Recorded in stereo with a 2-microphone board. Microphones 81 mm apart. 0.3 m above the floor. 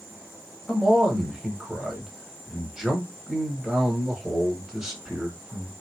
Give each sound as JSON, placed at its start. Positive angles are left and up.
{"t": 0.7, "sound": "a man speaking", "side_deg": -5, "distance_m": 1.3}